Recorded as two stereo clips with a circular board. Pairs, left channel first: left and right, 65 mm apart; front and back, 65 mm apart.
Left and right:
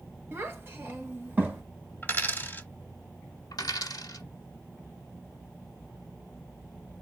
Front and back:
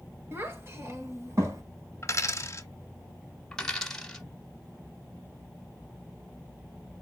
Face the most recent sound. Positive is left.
turn(degrees=85)